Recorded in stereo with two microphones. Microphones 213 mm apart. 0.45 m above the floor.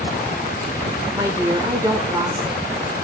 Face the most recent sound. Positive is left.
turn(degrees=-15)  # may be behind; listen again after turning